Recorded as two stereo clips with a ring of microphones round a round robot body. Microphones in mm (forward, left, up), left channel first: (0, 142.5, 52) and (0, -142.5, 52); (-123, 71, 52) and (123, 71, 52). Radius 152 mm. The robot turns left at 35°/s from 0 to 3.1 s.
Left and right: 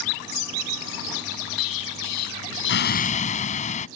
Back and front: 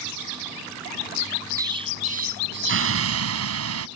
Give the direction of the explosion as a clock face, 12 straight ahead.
9 o'clock.